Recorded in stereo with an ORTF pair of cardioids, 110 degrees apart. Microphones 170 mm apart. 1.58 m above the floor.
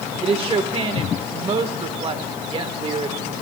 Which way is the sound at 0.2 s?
35° right.